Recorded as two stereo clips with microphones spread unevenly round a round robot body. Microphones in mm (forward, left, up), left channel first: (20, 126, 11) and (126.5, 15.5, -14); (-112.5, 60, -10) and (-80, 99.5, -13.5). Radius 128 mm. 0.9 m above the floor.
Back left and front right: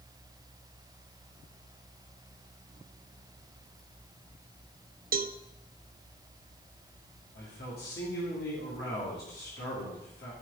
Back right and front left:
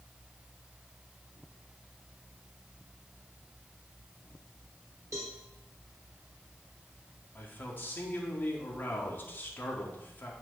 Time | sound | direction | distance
5.1 | a cowbell | 15° right | 0.5 m
7.3 | a man speaking | straight behind | 2 m